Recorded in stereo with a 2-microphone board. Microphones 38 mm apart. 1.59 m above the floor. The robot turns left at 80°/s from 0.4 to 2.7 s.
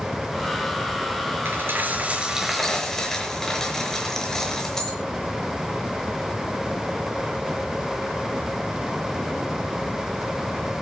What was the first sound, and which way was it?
A dropped coin, 95° right.